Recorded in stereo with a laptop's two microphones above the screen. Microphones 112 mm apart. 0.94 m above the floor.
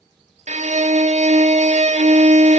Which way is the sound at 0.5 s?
70° right (ahead or behind).